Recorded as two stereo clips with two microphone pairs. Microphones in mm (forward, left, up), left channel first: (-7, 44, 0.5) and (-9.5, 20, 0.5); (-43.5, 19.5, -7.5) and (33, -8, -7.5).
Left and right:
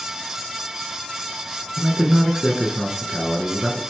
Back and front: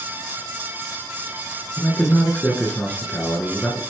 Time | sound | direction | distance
1.8 | a man speaking | 155° right | 1.2 m